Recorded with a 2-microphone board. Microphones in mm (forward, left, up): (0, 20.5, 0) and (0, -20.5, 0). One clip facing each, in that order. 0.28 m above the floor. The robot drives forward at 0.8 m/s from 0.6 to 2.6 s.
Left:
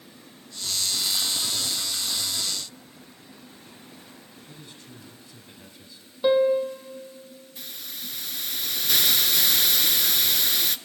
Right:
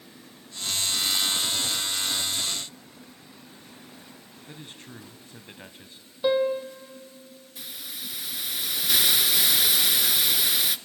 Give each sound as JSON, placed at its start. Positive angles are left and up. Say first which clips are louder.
{"t": 4.5, "sound": "a man speaking", "louder": "right 5 dB", "side_deg": -45, "distance_m": 1.9}
{"t": 6.2, "sound": "a piano", "louder": "left 4 dB", "side_deg": 5, "distance_m": 1.7}
{"t": 7.6, "sound": "a hiss", "louder": "right 1 dB", "side_deg": -5, "distance_m": 0.6}